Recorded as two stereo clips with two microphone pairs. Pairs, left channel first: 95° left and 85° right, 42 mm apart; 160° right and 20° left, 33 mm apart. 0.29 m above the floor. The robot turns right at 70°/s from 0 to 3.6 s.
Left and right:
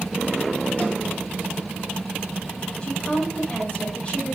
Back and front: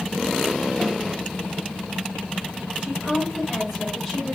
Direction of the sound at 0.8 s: 125° left.